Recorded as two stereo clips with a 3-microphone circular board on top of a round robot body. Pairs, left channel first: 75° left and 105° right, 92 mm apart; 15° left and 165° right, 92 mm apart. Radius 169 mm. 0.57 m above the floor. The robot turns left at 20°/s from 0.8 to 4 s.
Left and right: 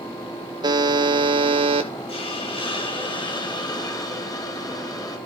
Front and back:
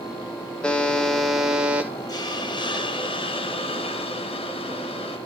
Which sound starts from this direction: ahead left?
A hiss, at 2.1 s.